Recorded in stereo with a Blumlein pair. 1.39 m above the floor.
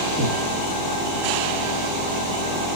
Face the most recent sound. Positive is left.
turn(degrees=20)